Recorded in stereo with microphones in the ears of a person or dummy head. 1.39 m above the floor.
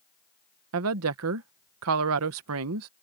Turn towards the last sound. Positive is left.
turn(degrees=-80)